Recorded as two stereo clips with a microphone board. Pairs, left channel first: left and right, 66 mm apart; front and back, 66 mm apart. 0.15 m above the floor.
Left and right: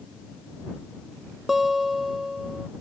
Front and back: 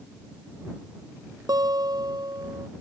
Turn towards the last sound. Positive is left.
turn(degrees=-175)